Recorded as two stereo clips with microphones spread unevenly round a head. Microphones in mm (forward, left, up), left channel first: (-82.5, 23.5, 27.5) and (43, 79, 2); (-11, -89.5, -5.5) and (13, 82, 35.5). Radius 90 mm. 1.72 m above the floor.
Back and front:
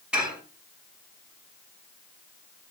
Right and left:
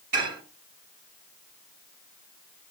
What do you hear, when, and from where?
0.1 s dishes clattering: 110° left, 5 m